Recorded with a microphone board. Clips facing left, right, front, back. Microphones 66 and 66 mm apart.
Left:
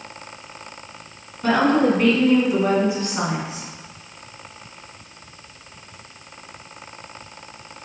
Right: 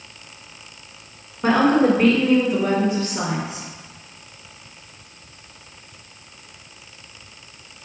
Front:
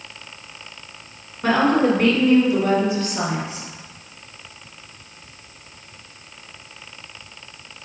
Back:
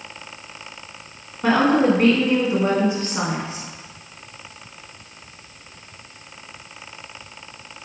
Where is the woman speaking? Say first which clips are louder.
Right 1 dB, back 1 dB; 110° right, 1.1 m; by 3.6 s 135° left, 1.5 m.